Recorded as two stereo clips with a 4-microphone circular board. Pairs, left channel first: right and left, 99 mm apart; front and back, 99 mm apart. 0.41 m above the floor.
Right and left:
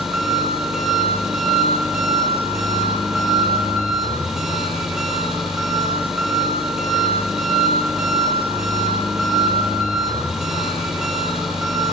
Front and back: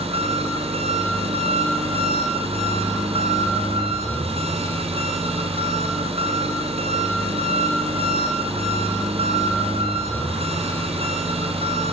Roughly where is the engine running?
Behind.